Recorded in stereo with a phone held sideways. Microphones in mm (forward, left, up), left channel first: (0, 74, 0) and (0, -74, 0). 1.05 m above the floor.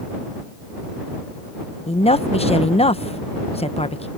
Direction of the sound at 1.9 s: 45° left (ahead or behind).